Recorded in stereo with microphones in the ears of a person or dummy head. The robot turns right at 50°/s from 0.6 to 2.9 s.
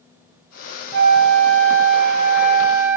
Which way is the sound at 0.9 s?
110° right.